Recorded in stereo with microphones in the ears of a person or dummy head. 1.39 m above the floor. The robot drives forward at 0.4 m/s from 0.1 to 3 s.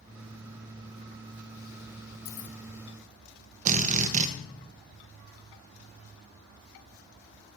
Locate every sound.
2.2 s keys jangling: 65° left (ahead or behind), 0.8 m
3.6 s a drill: 45° right (ahead or behind), 1.1 m